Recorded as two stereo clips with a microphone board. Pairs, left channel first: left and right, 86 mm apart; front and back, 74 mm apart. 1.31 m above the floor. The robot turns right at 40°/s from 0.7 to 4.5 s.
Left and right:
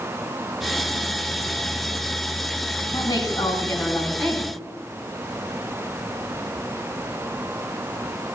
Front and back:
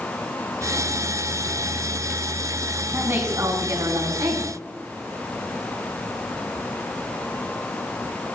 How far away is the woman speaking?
About 4.5 m.